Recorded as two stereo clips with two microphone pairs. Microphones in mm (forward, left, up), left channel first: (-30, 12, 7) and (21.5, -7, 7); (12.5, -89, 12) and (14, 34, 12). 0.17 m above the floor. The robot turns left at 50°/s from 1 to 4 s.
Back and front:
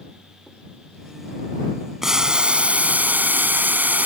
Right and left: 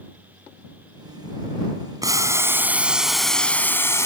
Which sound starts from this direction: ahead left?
Boiling, at 2.0 s.